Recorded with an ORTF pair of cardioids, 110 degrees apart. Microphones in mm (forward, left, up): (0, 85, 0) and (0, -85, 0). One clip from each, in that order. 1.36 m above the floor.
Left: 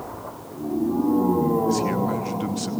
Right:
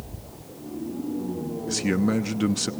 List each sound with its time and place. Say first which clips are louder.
1.7 s a man speaking: left 3 dB; 30° right, 0.8 m